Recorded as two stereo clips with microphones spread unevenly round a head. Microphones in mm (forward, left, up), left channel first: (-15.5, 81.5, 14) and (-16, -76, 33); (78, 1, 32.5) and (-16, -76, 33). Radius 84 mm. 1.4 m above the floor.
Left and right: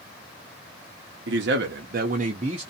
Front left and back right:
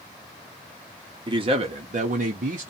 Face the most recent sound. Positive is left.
turn(degrees=-155)